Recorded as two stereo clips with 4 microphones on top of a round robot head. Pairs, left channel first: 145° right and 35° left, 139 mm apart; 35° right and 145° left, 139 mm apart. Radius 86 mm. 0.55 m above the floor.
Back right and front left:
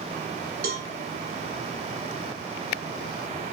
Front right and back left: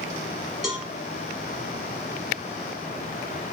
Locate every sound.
0.6 s a cowbell: 60° left, 0.9 m